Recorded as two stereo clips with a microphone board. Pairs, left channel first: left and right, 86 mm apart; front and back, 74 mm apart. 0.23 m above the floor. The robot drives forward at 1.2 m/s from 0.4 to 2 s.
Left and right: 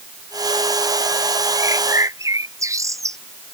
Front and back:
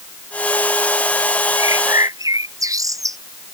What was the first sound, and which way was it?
A bird, 140° right.